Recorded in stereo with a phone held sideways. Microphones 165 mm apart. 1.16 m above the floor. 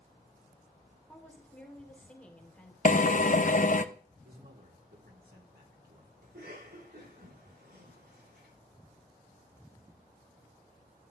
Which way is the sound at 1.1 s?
10° left (ahead or behind).